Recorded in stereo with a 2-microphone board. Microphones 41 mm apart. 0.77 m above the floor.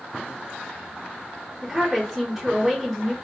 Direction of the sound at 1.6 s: 5° right (ahead or behind).